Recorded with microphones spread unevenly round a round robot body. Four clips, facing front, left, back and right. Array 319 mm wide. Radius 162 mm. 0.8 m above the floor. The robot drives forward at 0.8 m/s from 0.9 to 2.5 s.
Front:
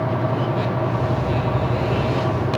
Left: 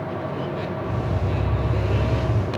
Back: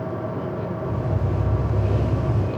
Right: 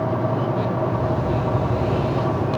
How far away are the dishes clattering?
No dishes clattering in this recording.